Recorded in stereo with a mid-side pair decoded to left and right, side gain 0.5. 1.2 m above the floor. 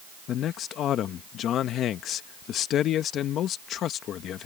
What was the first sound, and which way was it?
A man speaking, 65° left.